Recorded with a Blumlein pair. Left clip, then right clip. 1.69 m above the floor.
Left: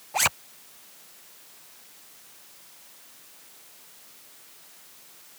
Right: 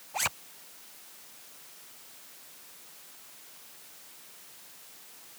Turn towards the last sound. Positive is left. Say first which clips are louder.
# left 7 dB
turn(degrees=20)